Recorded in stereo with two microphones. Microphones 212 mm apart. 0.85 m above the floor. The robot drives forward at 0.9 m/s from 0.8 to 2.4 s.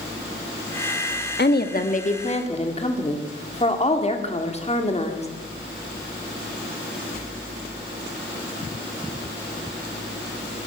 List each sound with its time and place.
1.4 s a woman speaking: 55° left (ahead or behind), 1.1 m; by 5.3 s 30° left (ahead or behind), 1.7 m